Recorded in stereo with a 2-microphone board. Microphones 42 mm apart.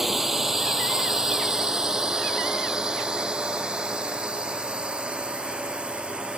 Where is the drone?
10° right (ahead or behind); by 6.4 s 25° right (ahead or behind).